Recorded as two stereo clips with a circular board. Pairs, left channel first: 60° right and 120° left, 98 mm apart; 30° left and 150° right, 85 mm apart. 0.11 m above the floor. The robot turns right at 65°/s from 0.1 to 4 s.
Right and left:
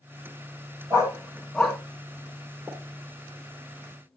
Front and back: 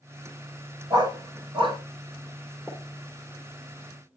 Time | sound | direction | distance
0.9 | a dog barking | 165° left | 5.5 m
2.7 | a pop | 175° right | 1.1 m